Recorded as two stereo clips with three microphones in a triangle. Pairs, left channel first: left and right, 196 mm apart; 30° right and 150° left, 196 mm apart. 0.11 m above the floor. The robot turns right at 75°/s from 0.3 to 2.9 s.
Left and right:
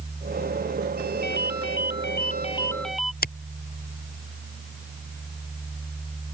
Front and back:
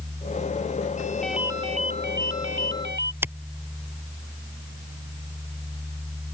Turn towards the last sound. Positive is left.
turn(degrees=75)